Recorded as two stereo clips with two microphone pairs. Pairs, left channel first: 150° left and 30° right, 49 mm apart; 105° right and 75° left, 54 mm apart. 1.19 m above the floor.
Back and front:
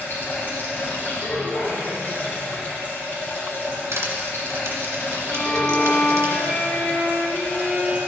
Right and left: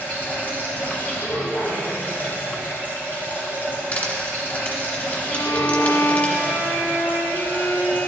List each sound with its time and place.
0.0 s running water: 160° right, 3 m
3.9 s crushing: 45° right, 2 m
5.3 s a violin: 140° right, 3.5 m